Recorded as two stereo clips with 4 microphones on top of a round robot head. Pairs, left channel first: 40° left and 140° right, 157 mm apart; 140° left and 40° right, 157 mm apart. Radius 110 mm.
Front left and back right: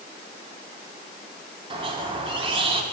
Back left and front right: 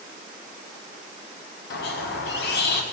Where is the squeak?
160° left, 1.6 m.